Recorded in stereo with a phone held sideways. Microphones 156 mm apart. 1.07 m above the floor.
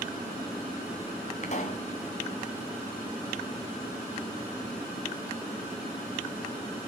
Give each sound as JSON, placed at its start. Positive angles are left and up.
{"t": 1.4, "sound": "a pop", "side_deg": 50, "distance_m": 2.5}